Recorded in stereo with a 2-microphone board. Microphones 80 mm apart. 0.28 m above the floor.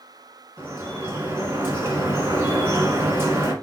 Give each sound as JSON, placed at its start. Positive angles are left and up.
{"t": 0.6, "sound": "dripping", "side_deg": -35, "distance_m": 1.6}